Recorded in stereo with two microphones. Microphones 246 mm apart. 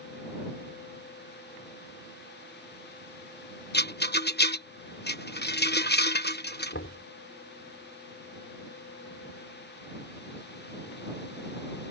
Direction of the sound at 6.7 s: 55° left (ahead or behind).